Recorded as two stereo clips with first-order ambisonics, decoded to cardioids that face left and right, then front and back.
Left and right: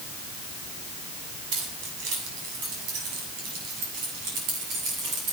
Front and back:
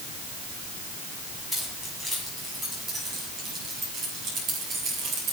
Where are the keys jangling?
95° right, 8 m; by 5.3 s 130° right, 9.5 m.